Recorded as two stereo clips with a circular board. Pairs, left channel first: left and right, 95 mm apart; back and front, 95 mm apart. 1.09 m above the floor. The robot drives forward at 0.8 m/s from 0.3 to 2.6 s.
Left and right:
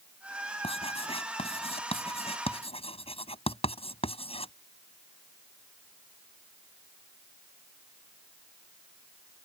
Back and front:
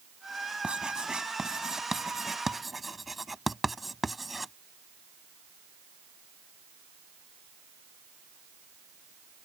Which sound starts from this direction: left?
Writing, at 0.6 s.